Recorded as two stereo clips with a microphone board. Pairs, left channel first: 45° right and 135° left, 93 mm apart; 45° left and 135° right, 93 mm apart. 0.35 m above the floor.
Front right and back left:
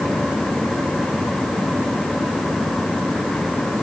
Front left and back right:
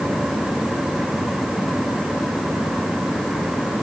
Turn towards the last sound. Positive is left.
No sound to turn to.